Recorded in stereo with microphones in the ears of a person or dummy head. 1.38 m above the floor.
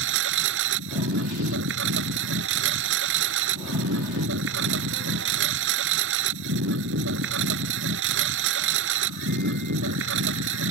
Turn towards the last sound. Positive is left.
turn(degrees=-80)